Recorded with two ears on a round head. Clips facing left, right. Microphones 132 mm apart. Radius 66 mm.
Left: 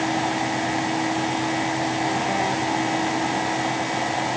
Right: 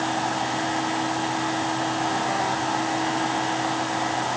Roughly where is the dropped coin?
No dropped coin in this recording.